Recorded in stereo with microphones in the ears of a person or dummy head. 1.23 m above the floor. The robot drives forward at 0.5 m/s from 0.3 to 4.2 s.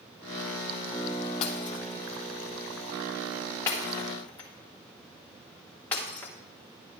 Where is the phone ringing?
I don't hear a phone ringing.